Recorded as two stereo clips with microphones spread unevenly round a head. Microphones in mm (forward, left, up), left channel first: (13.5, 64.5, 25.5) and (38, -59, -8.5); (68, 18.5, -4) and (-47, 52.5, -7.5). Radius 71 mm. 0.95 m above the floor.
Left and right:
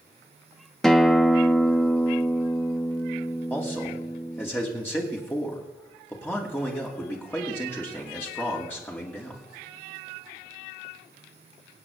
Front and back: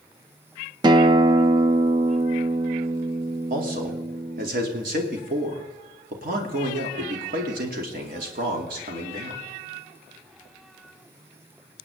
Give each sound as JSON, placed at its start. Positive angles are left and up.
{"t": 0.8, "sound": "a guitar", "azimuth_deg": -155, "distance_m": 0.5}
{"t": 3.5, "sound": "a man speaking", "azimuth_deg": 180, "distance_m": 2.5}